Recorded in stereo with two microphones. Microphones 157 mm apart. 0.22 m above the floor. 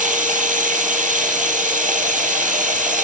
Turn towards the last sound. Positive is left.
turn(degrees=-55)  # may be behind; listen again after turning